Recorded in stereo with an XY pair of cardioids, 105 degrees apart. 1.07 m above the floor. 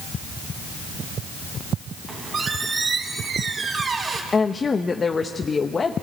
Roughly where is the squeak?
Ahead right.